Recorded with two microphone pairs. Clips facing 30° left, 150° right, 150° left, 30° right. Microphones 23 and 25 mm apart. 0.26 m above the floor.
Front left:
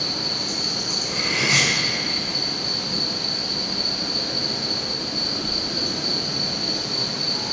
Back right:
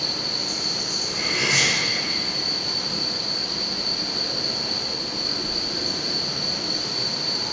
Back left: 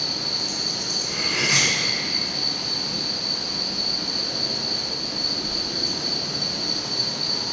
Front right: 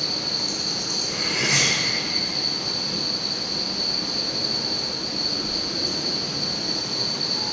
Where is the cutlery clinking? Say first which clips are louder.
Front left 1 dB, back left 1 dB; 80° left, 1.6 m.